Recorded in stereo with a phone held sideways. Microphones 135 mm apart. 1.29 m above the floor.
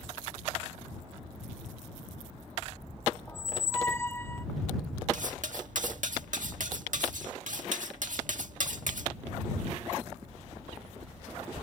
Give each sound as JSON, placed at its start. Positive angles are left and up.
{"t": 3.3, "sound": "a squeak", "side_deg": 20}
{"t": 5.1, "sound": "cutlery clinking", "side_deg": -70}